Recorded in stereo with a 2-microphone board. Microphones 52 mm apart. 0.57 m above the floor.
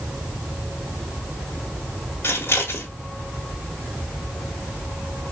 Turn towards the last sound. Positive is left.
turn(degrees=55)  # may be behind; listen again after turning